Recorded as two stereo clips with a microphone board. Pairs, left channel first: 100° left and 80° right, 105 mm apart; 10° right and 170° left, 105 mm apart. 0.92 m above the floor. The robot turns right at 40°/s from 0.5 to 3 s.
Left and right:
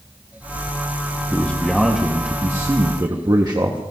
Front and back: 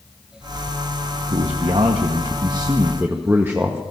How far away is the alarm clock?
I don't hear an alarm clock.